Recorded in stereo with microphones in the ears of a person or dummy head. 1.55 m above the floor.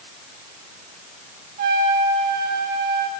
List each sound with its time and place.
1.6 s a trumpet: 55° right (ahead or behind), 3 m